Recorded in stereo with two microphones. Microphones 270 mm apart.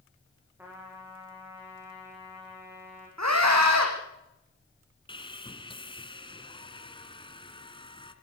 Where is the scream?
80° right, 7 m.